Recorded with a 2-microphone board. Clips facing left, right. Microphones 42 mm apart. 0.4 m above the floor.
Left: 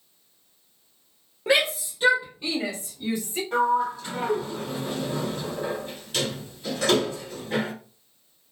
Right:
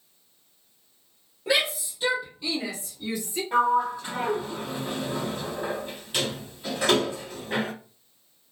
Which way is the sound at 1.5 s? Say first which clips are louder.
Left 3 dB; 30° left (ahead or behind).